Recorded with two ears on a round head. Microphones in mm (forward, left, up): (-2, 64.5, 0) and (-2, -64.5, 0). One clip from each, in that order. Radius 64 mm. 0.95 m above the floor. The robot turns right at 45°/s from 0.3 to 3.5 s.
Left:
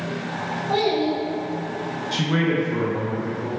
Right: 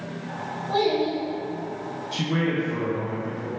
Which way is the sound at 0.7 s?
15° left (ahead or behind).